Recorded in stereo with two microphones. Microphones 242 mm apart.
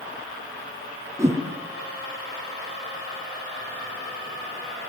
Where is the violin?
I don't hear a violin.